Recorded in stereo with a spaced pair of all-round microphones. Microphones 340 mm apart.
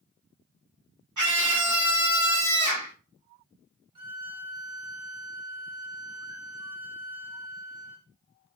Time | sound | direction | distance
1.2 | a scream | 60° right (ahead or behind) | 1.3 m
4.0 | a violin | 65° right (ahead or behind) | 1.5 m